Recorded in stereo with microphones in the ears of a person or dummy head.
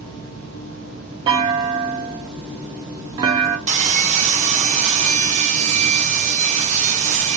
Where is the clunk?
25° right (ahead or behind), 0.8 m.